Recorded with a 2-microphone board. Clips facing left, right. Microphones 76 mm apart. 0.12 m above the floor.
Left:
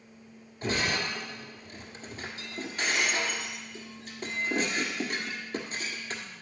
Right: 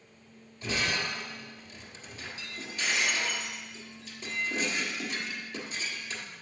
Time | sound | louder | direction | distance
0.6 | breaking glass | left 2 dB | 55° left (ahead or behind) | 1.4 m